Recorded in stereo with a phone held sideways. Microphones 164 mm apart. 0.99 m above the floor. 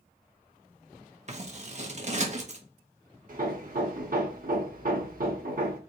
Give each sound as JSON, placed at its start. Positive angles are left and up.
{"t": 1.3, "sound": "scissors", "side_deg": -45, "distance_m": 1.0}
{"t": 3.3, "sound": "hammering", "side_deg": -60, "distance_m": 0.9}